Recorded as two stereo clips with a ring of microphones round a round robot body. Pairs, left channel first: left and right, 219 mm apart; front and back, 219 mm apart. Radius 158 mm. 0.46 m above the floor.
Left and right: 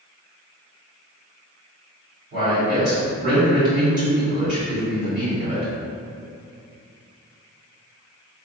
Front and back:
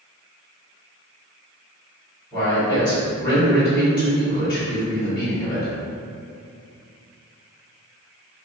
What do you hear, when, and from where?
2.3 s a man speaking: 75° right, 1.5 m